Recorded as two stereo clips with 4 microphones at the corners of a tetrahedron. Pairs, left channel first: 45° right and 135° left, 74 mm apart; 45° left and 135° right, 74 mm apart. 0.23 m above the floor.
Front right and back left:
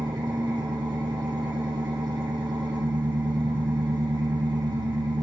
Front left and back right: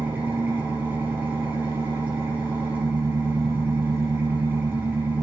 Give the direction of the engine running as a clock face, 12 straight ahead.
7 o'clock.